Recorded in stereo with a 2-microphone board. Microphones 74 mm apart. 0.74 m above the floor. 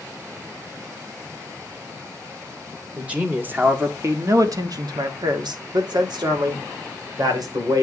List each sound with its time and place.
3.0 s a man speaking: 15° right (ahead or behind), 1.8 m; by 7.8 s 55° right (ahead or behind), 3 m